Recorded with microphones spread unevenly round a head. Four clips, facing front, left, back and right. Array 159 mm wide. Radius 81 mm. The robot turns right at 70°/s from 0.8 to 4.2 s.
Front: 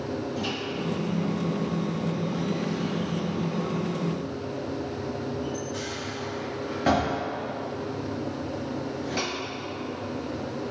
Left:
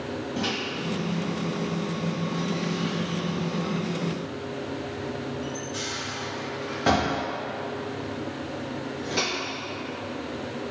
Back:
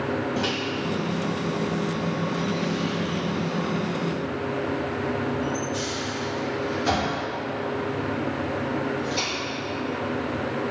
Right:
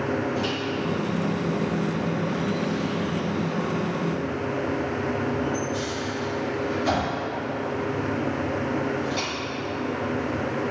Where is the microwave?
170° left, 1.3 m; by 9.3 s 45° left, 1.3 m.